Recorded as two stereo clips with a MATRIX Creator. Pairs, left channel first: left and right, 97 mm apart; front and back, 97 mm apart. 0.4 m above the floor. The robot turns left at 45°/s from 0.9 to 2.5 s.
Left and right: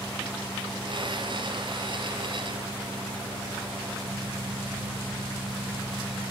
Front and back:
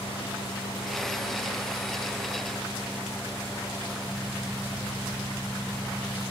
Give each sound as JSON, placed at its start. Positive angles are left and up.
{"t": 0.0, "sound": "an engine running", "azimuth_deg": 10, "distance_m": 4.5}